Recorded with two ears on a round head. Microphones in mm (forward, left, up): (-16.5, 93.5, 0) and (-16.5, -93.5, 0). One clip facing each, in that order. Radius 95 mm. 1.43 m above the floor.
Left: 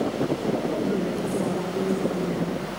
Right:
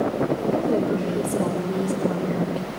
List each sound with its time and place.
0.5 s a woman speaking: 45° right (ahead or behind), 6.5 m